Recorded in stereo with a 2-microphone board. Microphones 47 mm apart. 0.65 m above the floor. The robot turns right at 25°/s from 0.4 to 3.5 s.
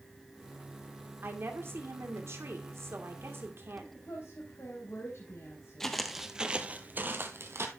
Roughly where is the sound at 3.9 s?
Left.